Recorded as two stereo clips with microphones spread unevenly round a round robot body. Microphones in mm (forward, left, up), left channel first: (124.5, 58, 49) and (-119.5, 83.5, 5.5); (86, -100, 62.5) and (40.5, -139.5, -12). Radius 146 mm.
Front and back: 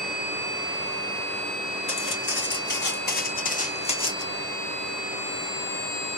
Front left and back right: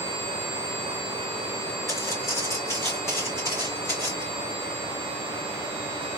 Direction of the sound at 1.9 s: 25° left.